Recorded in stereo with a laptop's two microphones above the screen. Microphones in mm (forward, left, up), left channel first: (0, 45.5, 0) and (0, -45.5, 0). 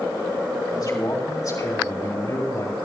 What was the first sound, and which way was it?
A man speaking, 50° left (ahead or behind).